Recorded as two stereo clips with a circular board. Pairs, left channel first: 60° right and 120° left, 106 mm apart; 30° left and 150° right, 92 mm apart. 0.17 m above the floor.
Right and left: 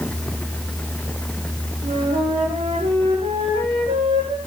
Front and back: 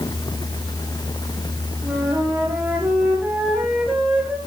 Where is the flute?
130° left, 7 m.